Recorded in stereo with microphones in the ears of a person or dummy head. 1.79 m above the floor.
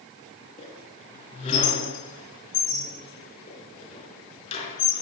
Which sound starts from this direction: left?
A squeak, at 0.6 s.